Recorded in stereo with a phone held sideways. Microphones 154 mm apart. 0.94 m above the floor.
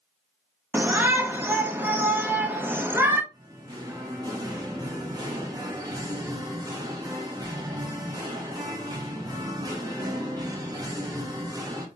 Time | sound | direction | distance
0.7 | a shout | 15° right (ahead or behind) | 0.7 m
3.3 | singing | 25° right (ahead or behind) | 1.2 m